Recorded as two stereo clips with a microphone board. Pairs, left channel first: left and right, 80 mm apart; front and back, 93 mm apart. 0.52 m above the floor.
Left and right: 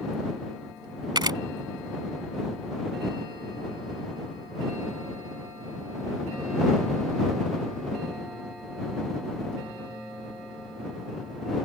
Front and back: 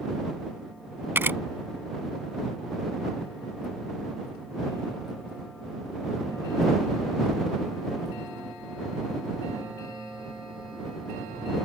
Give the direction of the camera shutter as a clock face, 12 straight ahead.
4 o'clock.